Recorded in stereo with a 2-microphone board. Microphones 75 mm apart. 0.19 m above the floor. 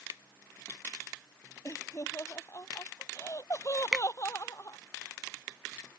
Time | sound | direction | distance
1.6 | laughter | 40° left (ahead or behind) | ?
3.9 | a finger snap | 10° right (ahead or behind) | ?